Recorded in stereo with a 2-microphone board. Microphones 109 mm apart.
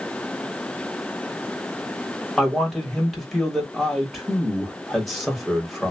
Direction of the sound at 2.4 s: Centre (ahead or behind).